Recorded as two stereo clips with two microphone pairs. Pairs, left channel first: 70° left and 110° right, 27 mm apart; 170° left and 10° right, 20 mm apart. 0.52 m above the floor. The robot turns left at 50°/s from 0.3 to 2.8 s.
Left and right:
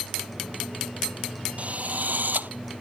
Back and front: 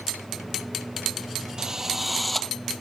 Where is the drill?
70° right; by 2.5 s 115° right.